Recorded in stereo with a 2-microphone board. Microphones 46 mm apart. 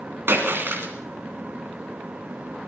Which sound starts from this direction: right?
A splash, at 0.3 s.